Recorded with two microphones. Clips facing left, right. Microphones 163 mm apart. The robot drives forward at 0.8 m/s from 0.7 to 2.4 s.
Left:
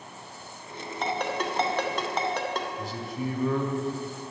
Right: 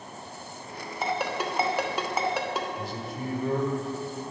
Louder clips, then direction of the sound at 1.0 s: Even; 5° right (ahead or behind).